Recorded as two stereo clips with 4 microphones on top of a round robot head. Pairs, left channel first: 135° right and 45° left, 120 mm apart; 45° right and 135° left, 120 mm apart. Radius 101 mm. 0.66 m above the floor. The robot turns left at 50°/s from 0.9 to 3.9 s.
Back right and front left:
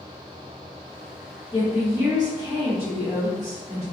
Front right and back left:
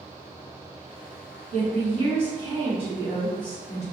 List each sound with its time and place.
1.5 s a woman speaking: 130° left, 1.4 m; by 3.8 s 10° left, 1.4 m